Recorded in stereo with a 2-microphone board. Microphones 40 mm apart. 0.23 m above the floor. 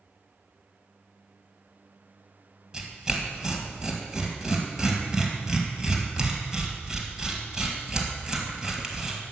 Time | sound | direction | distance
2.7 | tearing paper | 20° right (ahead or behind) | 1.7 m